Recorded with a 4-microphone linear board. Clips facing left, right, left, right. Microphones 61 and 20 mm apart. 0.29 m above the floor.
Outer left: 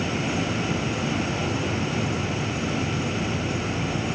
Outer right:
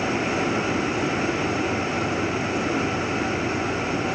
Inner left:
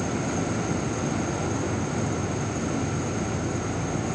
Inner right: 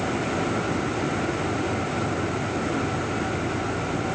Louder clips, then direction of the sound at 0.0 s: Outer right 3 dB, inner right 2 dB; 65° left (ahead or behind).